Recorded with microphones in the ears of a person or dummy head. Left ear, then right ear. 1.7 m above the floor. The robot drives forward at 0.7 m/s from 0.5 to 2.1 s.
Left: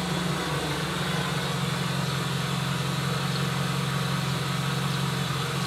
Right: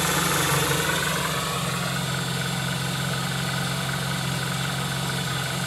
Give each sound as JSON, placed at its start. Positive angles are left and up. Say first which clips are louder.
{"t": 0.0, "sound": "an engine running", "louder": "right 6 dB", "side_deg": -50, "distance_m": 0.7}